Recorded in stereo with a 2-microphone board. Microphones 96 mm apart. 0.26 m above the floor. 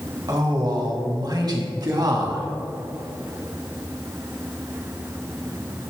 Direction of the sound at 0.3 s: 45° right (ahead or behind).